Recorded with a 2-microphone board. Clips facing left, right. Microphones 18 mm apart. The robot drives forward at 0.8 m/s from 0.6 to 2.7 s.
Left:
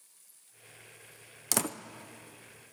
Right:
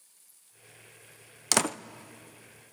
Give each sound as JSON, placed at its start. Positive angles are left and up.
{"t": 1.5, "sound": "a door slam", "side_deg": -25, "distance_m": 0.5}